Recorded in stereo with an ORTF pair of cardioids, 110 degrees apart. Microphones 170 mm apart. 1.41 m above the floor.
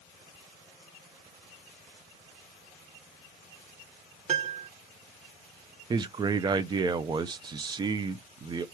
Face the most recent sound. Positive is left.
turn(degrees=-25)